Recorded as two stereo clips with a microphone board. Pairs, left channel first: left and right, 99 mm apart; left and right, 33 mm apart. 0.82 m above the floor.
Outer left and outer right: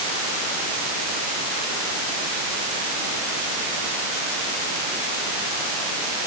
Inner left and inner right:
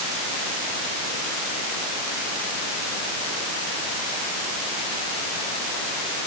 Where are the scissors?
I don't hear scissors.